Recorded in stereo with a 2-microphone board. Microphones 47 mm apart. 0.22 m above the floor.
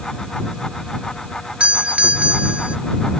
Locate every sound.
1.6 s a doorbell: 25° right (ahead or behind)